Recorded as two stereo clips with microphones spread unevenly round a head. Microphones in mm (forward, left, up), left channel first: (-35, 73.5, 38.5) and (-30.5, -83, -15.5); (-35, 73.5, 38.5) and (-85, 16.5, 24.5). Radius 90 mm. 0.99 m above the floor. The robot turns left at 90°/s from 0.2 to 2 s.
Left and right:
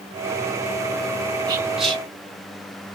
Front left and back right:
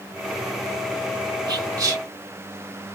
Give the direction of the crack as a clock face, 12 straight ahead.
No crack in this recording.